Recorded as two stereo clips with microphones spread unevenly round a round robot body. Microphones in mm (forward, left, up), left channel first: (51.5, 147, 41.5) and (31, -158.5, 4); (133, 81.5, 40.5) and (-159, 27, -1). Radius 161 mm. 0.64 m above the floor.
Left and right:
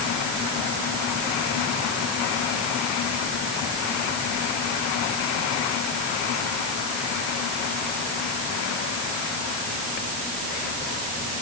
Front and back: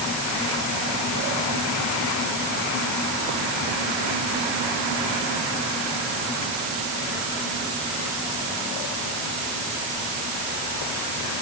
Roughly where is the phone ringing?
I don't hear a phone ringing.